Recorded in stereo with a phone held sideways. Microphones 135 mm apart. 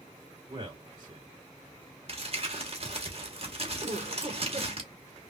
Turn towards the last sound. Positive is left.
turn(degrees=-55)  # may be behind; listen again after turning